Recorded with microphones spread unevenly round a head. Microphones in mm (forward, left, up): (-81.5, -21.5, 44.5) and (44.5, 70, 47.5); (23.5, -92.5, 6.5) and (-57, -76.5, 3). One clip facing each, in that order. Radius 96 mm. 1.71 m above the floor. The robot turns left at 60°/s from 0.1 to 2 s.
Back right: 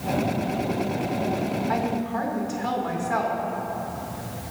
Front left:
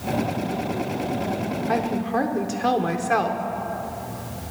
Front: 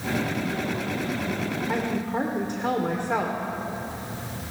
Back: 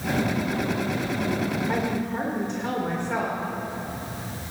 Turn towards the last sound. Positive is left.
turn(degrees=60)